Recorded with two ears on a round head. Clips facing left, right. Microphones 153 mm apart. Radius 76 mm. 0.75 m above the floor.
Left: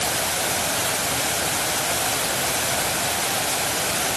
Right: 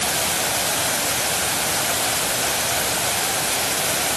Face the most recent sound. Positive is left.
No sound to turn to.